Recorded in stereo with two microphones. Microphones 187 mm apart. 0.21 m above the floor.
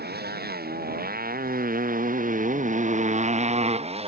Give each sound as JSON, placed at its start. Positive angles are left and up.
{"t": 0.0, "sound": "a motorcycle", "side_deg": -60}